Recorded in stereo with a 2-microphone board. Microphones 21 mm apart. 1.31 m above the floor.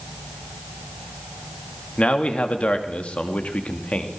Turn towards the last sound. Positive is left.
turn(degrees=75)  # may be behind; listen again after turning